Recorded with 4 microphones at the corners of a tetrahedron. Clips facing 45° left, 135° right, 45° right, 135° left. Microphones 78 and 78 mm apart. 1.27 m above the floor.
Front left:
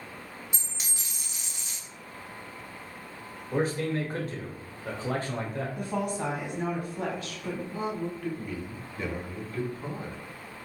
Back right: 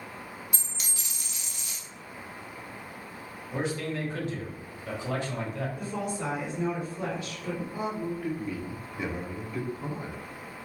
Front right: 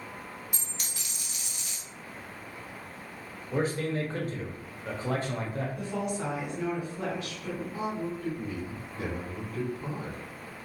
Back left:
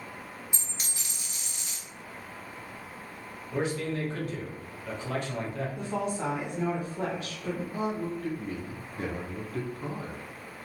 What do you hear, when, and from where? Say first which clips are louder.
0.5 s a dropped coin: back right 1 dB, even; 90° left, 1.0 m
3.5 s a man speaking: front left 4 dB, front right 1 dB; straight ahead, 0.9 m
5.8 s a woman speaking: front left 2 dB, back left 4 dB; 75° left, 1.5 m
7.7 s a man speaking: even, back left 1 dB; 145° left, 0.7 m